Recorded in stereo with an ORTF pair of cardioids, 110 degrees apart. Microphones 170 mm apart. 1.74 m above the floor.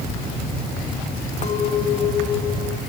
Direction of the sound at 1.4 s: 45° left.